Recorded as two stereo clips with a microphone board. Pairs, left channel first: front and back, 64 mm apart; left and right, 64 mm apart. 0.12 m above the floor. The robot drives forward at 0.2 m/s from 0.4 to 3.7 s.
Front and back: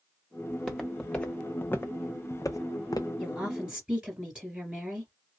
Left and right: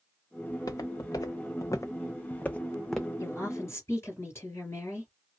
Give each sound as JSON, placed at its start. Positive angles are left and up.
{"t": 0.5, "sound": "footsteps", "azimuth_deg": 90, "distance_m": 1.0}
{"t": 3.2, "sound": "a woman speaking", "azimuth_deg": 105, "distance_m": 2.0}